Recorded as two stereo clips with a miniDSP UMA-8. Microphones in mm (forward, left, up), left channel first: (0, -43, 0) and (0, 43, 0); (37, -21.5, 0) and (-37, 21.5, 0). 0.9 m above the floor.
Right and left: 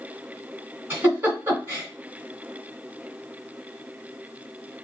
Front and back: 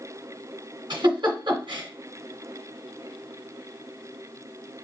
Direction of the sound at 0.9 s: 155° left.